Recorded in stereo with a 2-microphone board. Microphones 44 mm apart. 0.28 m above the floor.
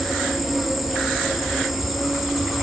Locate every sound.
0.0 s an insect: centre (ahead or behind), 3 m